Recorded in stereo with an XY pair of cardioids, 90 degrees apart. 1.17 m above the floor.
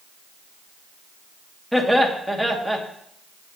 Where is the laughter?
10° right, 2 m.